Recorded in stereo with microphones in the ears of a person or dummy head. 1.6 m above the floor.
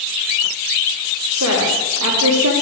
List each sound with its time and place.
1.3 s a woman speaking: 90° right, 3.5 m